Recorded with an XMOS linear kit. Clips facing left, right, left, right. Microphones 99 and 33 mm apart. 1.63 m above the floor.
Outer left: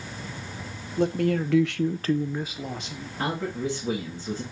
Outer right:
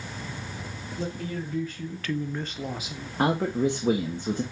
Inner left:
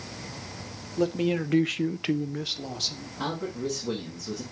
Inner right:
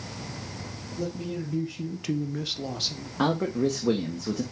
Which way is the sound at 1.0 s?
55° left (ahead or behind).